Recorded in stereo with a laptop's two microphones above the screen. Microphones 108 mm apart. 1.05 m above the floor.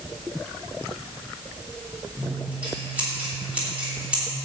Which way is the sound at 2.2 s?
10° right (ahead or behind).